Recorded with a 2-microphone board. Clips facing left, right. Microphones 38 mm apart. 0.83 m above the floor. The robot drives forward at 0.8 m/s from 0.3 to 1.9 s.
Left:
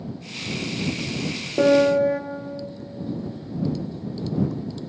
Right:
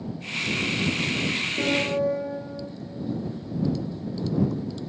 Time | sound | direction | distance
1.6 | a piano | 70° left (ahead or behind) | 0.7 m